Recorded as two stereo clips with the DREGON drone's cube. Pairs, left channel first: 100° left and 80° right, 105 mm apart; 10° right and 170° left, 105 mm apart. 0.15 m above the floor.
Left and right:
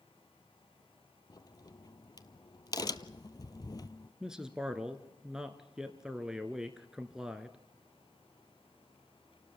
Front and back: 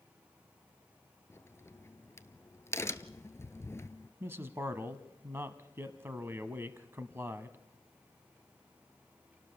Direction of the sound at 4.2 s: 155° right.